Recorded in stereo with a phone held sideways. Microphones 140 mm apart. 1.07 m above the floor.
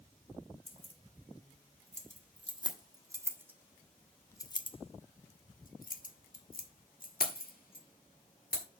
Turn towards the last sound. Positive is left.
turn(degrees=75)  # may be behind; listen again after turning